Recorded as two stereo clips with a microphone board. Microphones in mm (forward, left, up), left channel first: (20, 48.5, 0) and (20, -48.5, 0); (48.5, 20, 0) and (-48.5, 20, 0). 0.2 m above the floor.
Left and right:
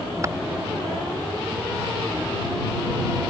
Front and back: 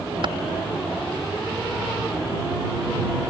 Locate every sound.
0.2 s typing on a keyboard: 145° right